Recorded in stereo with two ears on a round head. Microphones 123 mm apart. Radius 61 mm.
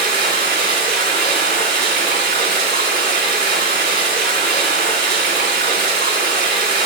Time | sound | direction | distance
0.0 | running water | 75° right (ahead or behind) | 4 m